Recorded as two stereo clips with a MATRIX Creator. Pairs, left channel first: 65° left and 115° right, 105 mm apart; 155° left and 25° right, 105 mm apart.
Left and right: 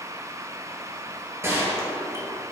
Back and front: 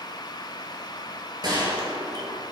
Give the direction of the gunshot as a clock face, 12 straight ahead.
2 o'clock.